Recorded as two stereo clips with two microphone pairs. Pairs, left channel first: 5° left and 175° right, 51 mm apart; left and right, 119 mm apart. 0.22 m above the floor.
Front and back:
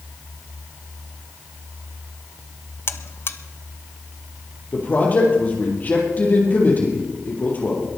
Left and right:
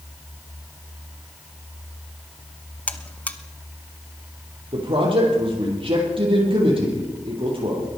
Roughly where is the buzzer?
Ahead.